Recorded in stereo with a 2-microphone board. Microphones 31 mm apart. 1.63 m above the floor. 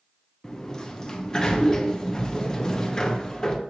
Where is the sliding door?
20° left (ahead or behind), 0.6 m.